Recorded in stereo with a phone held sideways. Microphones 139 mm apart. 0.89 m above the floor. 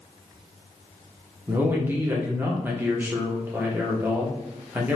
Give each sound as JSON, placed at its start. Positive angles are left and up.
{"t": 1.5, "sound": "a man speaking", "side_deg": -15, "distance_m": 0.7}